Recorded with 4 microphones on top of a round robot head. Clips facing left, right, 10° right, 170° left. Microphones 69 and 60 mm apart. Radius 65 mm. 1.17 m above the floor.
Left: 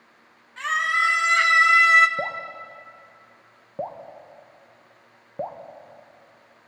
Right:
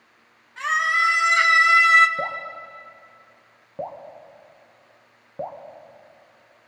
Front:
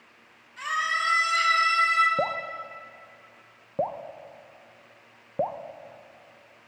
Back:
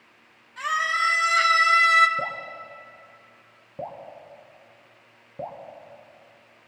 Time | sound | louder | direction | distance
0.6 | a scream | right 2 dB, back 3 dB | 175° right | 3 m
2.2 | dripping | right 1 dB, front 3 dB | 10° left | 0.7 m